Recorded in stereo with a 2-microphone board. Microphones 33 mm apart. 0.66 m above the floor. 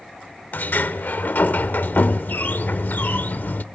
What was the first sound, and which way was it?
A sliding door, 75° left (ahead or behind).